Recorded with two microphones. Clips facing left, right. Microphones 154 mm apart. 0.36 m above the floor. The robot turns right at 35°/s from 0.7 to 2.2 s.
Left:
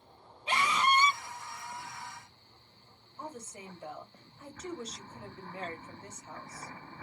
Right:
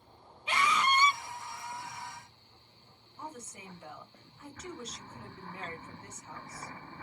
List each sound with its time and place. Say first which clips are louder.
0.5 s a scream: left 1 dB; 35° left (ahead or behind), 1.4 m; by 1.2 s 25° left (ahead or behind), 1.4 m
3.2 s a woman speaking: left 2 dB; 30° left (ahead or behind), 1.6 m